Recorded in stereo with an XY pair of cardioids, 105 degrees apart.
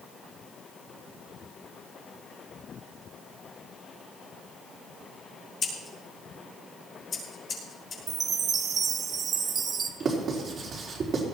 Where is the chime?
50° right, 1.4 m.